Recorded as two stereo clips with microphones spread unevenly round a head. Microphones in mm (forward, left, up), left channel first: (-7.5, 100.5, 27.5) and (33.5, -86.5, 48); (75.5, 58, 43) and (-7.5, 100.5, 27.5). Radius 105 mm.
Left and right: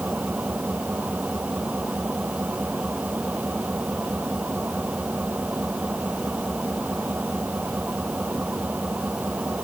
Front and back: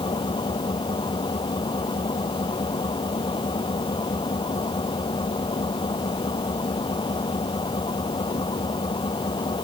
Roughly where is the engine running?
Ahead.